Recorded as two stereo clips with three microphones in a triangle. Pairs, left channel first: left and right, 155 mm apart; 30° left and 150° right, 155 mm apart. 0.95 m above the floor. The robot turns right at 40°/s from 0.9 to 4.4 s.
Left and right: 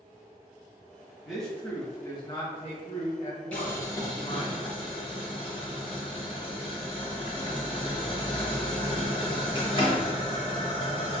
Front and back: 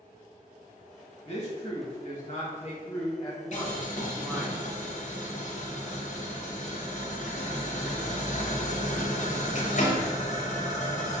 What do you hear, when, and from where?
1.2 s a man speaking: 5° right, 1.1 m; by 4.5 s 125° left, 1.1 m
3.5 s boiling: 10° left, 0.7 m; by 11.2 s 45° left, 0.7 m